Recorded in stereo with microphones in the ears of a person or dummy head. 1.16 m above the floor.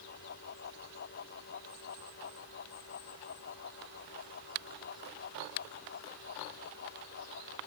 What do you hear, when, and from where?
0.0 s a fan: 55° left (ahead or behind)